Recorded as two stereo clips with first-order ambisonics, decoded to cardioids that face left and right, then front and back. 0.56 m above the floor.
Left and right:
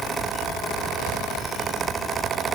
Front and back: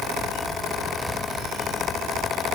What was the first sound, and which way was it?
Only background noise.